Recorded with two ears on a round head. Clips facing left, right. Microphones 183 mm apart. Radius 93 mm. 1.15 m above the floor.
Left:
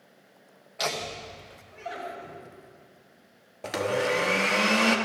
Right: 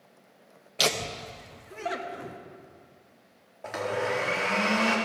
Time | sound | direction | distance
0.8 | laughter | 40° right (ahead or behind) | 0.9 m
3.6 | a blender | 40° left (ahead or behind) | 1.0 m